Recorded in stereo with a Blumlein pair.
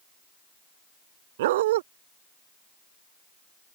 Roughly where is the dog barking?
Ahead right.